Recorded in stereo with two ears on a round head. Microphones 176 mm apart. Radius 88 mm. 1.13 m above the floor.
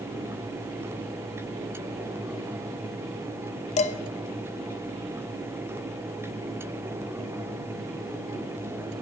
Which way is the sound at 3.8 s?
35° left (ahead or behind).